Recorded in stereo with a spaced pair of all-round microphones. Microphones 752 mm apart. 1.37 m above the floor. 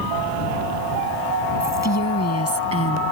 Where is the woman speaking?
20° left (ahead or behind); by 3.1 s 15° left (ahead or behind).